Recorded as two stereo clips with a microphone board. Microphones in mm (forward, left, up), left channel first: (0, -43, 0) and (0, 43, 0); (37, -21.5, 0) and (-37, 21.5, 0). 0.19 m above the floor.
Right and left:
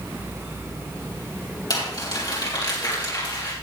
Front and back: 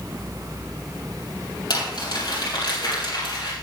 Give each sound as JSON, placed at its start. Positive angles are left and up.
{"t": 1.7, "sound": "crumpling", "azimuth_deg": -55, "distance_m": 5.0}